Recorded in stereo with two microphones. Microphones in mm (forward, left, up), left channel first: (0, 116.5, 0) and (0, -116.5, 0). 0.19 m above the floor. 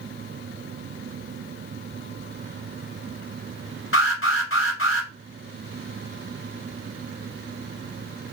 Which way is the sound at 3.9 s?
65° left (ahead or behind).